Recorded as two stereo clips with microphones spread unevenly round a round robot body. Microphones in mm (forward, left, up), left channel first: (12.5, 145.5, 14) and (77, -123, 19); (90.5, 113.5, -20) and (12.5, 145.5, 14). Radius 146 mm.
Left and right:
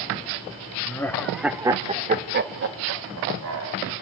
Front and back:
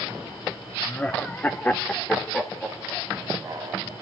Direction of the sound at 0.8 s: 25° left.